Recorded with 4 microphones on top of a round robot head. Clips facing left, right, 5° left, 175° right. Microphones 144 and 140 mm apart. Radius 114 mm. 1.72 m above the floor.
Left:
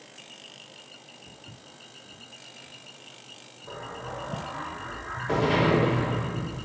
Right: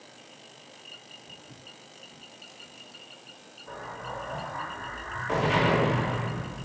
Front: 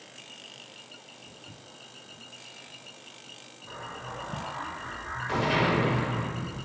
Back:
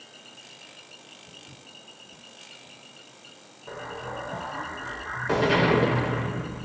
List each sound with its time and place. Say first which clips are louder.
1.3 s footsteps: even, even; 90° left, 7 m
3.7 s an explosion: left 1 dB, back 5 dB; 150° left, 5 m